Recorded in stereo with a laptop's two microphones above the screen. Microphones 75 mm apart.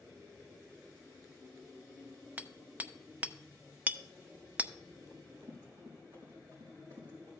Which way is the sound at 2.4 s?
20° right (ahead or behind).